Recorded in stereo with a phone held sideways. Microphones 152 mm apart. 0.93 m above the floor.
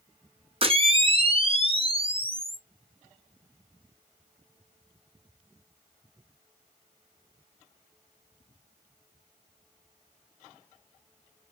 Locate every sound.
0.6 s a camera shutter: 40° right (ahead or behind), 0.7 m